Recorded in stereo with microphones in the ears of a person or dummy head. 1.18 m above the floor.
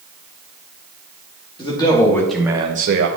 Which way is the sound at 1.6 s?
20° left (ahead or behind).